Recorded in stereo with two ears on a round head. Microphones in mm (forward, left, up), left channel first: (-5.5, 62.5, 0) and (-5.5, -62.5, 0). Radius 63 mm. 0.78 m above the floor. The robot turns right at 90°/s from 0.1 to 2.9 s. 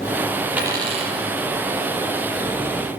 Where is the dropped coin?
170° right, 8 m; by 1.2 s 115° right, 8 m.